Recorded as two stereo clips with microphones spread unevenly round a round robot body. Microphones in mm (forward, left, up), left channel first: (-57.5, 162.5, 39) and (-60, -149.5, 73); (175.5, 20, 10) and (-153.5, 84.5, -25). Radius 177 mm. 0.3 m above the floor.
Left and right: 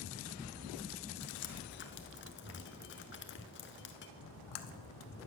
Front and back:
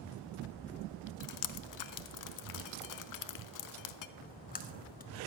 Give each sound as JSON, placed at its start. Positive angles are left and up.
{"t": 1.2, "sound": "dripping", "azimuth_deg": 30, "distance_m": 0.7}
{"t": 4.2, "sound": "a splash", "azimuth_deg": 55, "distance_m": 0.9}